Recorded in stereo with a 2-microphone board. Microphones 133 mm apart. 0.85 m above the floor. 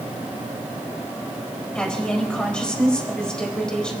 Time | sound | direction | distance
1.8 | a woman speaking | 5° left (ahead or behind) | 4 m